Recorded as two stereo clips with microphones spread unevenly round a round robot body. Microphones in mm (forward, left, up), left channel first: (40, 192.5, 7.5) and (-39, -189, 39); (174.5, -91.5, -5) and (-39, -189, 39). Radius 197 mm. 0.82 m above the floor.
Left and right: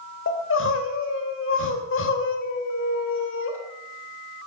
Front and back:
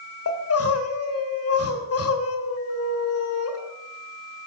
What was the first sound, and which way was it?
Crying, 20° left.